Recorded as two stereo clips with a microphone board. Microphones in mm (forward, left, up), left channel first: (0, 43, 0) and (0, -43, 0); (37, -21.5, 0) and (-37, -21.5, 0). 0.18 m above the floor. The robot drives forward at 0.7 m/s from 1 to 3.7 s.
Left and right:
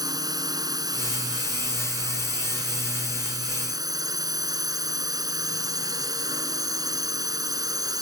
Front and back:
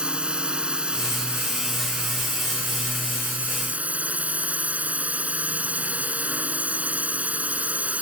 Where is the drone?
110° right; by 8.0 s 115° right.